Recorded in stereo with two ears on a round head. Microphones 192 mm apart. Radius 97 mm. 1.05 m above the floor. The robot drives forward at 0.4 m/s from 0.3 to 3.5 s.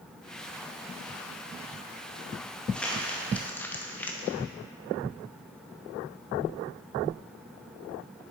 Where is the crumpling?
5° left (ahead or behind), 0.8 m; by 4.4 s 10° left (ahead or behind), 0.5 m.